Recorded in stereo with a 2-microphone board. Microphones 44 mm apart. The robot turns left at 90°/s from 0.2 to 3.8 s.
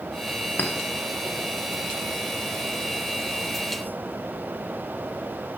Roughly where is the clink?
Left.